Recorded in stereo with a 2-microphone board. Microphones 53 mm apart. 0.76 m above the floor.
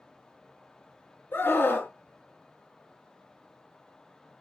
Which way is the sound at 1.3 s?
40° left (ahead or behind).